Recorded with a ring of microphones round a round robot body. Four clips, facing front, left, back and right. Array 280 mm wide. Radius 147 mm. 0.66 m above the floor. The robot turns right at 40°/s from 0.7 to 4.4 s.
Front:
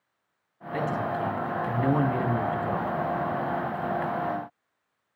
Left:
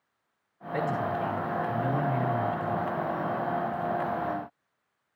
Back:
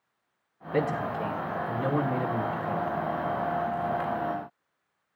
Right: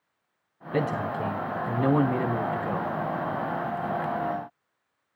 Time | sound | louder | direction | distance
0.7 | a man speaking | right 1 dB, even | 115° right | 5.5 m